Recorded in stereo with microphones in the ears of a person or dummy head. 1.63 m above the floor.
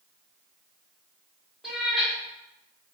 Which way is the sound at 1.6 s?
Centre (ahead or behind).